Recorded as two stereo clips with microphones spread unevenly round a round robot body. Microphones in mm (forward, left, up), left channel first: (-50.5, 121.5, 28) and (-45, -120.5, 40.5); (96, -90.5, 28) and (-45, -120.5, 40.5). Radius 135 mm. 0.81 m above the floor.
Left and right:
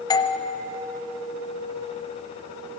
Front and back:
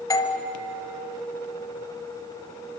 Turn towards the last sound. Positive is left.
turn(degrees=40)